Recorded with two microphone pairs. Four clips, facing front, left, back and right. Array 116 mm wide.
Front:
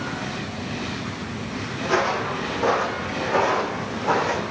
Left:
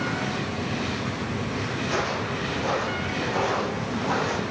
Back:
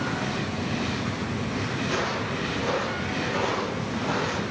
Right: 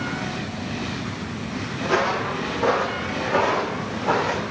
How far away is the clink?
I don't hear a clink.